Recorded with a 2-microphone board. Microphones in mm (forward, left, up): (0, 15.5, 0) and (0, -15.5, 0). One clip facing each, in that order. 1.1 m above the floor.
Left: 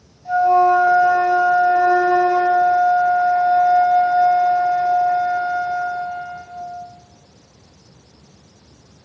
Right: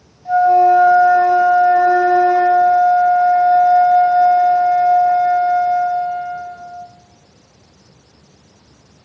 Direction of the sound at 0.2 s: 25° right (ahead or behind).